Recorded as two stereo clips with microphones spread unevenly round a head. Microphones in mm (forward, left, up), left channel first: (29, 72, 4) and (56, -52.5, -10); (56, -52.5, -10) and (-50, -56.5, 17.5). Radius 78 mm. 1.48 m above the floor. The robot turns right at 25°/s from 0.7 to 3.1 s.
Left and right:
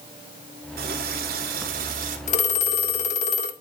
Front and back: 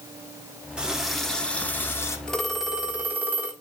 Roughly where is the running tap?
Right.